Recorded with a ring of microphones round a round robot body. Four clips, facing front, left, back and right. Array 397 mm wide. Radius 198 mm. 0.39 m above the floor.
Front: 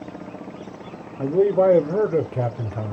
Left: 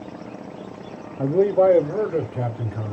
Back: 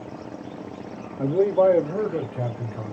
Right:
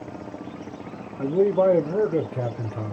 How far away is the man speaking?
About 0.9 m.